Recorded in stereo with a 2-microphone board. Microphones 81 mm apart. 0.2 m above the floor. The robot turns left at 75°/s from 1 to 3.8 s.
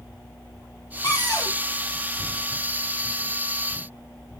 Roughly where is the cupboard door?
Left.